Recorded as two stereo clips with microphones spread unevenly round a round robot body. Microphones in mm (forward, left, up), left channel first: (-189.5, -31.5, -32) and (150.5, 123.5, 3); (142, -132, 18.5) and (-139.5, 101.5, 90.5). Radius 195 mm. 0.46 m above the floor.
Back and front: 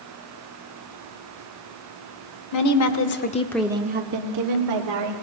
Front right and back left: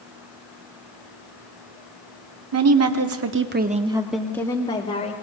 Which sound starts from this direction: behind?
A woman speaking, at 2.5 s.